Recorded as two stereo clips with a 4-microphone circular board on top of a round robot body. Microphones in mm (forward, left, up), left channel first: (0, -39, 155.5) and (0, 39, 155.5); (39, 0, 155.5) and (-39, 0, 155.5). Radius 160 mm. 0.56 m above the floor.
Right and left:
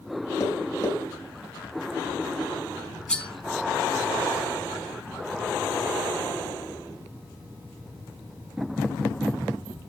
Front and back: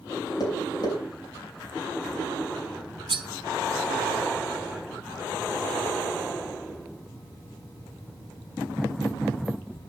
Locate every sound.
0.4 s tapping: 40° right, 4 m
3.1 s cutlery clinking: 170° right, 1.0 m